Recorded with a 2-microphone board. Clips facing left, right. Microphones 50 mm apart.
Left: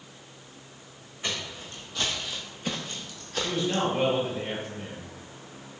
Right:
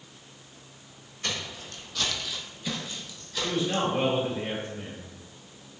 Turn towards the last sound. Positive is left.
turn(degrees=-15)  # may be behind; listen again after turning